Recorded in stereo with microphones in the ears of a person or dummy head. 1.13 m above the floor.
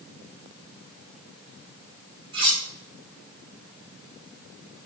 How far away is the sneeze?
No sneeze in this recording.